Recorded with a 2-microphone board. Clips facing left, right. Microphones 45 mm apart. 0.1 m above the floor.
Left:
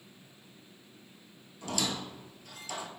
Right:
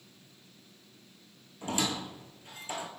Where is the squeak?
25° right (ahead or behind), 0.9 m.